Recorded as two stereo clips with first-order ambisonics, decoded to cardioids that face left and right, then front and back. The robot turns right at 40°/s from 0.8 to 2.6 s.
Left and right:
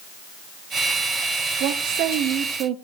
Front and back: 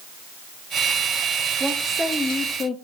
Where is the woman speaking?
100° right, 0.9 m; by 2.8 s 60° right, 0.9 m.